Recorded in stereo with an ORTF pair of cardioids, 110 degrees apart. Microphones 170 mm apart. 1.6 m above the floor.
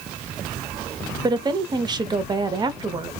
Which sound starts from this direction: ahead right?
A woman speaking, at 1.2 s.